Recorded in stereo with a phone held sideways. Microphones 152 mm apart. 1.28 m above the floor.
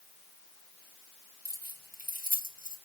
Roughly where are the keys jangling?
Right.